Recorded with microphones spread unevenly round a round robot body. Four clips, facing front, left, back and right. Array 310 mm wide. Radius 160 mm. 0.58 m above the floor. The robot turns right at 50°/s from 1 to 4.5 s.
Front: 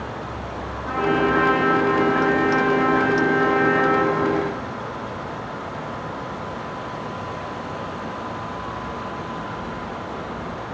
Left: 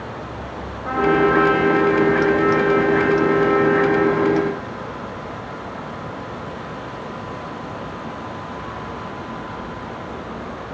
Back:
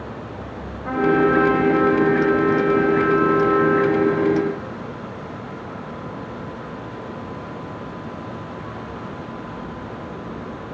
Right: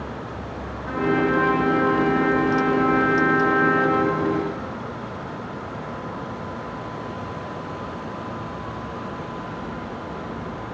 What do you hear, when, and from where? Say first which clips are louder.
0.8 s a trumpet: left 5 dB, back 3 dB; 145° left, 1.7 m; by 4.2 s 50° right, 1.7 m